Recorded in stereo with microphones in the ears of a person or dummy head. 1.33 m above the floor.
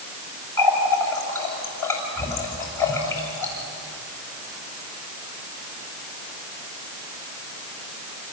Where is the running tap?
15° left (ahead or behind), 5.5 m.